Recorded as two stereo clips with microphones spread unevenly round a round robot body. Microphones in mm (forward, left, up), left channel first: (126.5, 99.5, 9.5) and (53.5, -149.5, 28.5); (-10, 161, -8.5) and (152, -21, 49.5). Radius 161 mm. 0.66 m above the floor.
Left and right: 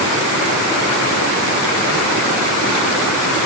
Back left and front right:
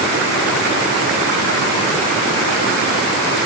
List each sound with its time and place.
Only background noise.